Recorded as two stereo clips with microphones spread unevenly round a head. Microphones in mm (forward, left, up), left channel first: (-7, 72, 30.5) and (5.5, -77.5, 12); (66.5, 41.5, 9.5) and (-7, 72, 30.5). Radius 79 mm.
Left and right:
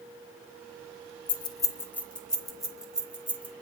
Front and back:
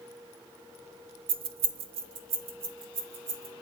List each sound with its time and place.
1.3 s keys jangling: 155° left, 0.6 m; by 3.5 s 165° right, 1.6 m